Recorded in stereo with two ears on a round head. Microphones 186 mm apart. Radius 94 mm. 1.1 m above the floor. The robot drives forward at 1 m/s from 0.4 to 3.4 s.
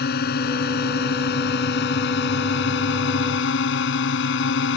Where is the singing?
No singing in this recording.